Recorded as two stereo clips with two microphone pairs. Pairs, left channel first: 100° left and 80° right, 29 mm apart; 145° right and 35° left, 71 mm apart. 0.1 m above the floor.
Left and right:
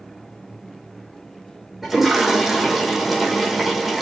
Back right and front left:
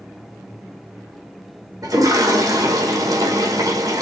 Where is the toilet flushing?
5° left, 5 m.